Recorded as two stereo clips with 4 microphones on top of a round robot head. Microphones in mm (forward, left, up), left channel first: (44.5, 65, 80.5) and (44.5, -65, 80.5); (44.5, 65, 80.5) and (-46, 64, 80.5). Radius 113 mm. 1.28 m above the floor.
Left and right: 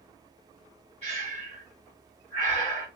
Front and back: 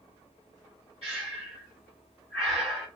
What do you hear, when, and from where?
1.0 s breathing: 140° right, 1.6 m